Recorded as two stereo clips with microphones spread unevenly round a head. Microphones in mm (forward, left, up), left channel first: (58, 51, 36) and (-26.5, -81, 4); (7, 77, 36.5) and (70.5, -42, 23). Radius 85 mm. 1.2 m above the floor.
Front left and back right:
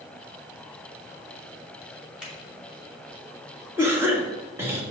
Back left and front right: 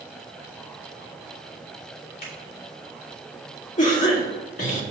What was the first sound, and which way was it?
A finger snap, 150° left.